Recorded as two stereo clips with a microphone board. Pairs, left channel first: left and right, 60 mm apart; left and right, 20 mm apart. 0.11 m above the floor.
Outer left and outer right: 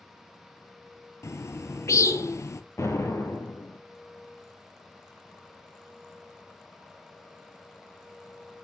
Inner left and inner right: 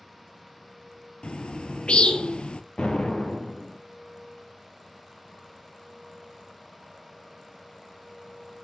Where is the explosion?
55° left (ahead or behind), 1.2 m.